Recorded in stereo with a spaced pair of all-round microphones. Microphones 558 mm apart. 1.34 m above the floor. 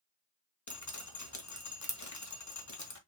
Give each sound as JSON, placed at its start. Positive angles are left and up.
{"t": 0.7, "sound": "dripping", "side_deg": 30, "distance_m": 1.3}